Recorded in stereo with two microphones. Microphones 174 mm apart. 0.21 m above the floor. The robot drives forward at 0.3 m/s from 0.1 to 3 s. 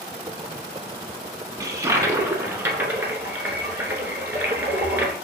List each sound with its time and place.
1.6 s a toilet flushing: 20° right (ahead or behind), 0.5 m; by 5.1 s 10° right (ahead or behind), 0.9 m